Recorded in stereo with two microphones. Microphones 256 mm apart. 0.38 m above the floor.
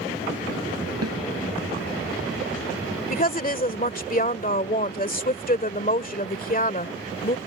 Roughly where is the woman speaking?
Left.